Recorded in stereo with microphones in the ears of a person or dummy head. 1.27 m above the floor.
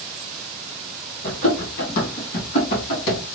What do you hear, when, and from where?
1.2 s running footsteps: 45° left (ahead or behind), 1.8 m; by 3.2 s 65° left (ahead or behind), 3 m